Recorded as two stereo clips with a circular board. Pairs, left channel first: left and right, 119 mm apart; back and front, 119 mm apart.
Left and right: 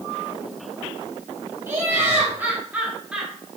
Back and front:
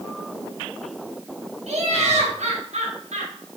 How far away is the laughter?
About 4 m.